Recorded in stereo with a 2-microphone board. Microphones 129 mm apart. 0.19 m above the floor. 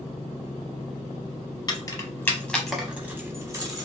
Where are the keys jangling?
30° left (ahead or behind), 0.8 m; by 3.9 s 30° right (ahead or behind), 0.9 m.